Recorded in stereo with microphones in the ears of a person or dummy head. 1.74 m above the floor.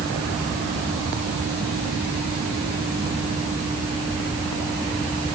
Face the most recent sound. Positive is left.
No sound to turn to.